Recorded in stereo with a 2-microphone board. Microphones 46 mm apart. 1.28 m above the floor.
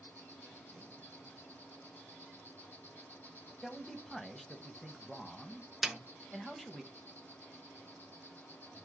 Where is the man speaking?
5° left (ahead or behind), 0.7 m.